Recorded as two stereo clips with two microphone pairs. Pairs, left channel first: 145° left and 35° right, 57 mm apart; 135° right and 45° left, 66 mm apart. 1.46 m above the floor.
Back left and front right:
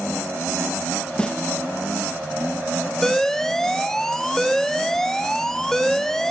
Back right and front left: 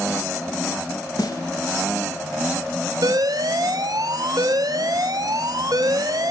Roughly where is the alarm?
Ahead left.